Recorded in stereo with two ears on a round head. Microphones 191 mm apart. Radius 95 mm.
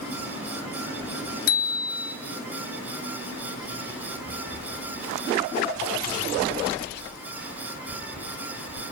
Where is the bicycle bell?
50° left (ahead or behind), 3 m.